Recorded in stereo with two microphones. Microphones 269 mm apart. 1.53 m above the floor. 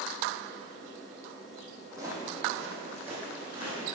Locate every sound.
1.9 s footsteps: 10° right (ahead or behind), 2 m; by 3.9 s 5° right (ahead or behind), 4 m